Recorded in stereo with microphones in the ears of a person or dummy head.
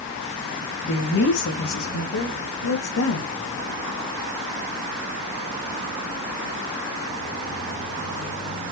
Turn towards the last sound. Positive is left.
turn(degrees=85)